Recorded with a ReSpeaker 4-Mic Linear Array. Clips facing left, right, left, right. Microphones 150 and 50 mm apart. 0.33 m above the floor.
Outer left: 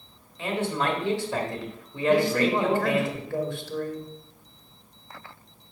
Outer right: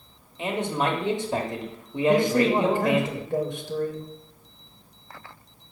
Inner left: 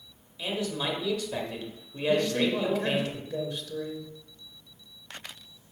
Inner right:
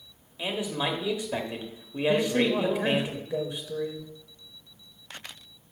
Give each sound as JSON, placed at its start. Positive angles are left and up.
{"t": 0.4, "sound": "a man speaking", "side_deg": -20, "distance_m": 1.1}
{"t": 2.1, "sound": "a man speaking", "side_deg": -20, "distance_m": 0.9}